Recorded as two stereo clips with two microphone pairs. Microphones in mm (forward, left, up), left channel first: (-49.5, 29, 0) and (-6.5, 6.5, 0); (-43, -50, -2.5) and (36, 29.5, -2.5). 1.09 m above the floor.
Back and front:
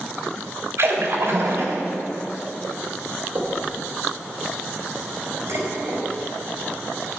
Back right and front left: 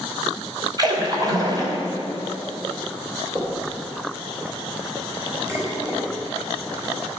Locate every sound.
0.8 s a splash: 5° right, 2.5 m
3.4 s knocking: 10° right, 4 m
5.5 s dishes clattering: 20° right, 4.5 m